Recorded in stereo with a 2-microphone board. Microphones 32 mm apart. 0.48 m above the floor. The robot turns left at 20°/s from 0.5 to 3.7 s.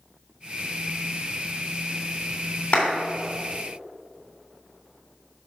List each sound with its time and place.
2.7 s a clap: 40° left (ahead or behind), 3 m